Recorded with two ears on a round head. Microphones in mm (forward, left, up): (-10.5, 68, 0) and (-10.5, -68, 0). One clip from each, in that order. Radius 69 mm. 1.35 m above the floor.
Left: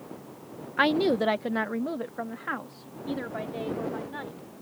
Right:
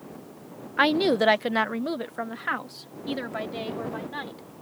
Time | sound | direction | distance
0.8 | a woman speaking | 10° right (ahead or behind) | ?